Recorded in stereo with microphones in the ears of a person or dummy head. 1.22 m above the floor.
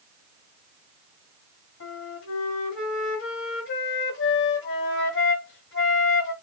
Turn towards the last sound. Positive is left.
turn(degrees=65)  # may be behind; listen again after turning